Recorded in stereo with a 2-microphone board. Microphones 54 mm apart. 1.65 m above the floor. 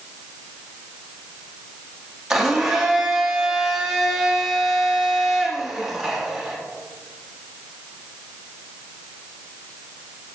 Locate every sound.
2.3 s a blender: 10° right (ahead or behind), 1.4 m